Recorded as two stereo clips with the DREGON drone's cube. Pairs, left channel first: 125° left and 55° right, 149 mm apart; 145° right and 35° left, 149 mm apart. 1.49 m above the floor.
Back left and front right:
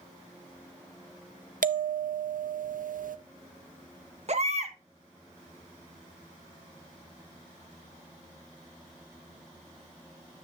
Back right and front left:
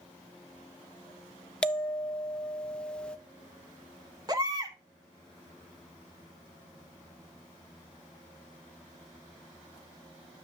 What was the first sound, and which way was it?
A bell, 65° right.